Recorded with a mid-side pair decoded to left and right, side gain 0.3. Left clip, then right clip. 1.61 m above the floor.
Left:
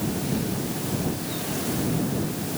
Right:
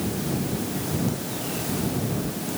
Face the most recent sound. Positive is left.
No sound to turn to.